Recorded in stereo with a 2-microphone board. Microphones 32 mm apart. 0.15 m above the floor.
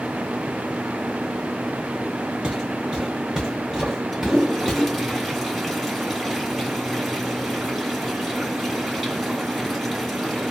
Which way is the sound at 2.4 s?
25° right (ahead or behind).